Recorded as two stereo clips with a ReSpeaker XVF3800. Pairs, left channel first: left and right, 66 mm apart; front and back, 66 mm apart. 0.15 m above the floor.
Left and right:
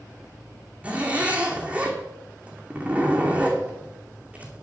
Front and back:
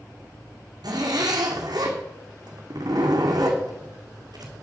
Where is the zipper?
160° right, 2 m.